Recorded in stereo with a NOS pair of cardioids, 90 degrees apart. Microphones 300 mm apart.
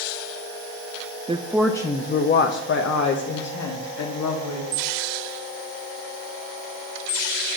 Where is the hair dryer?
No hair dryer in this recording.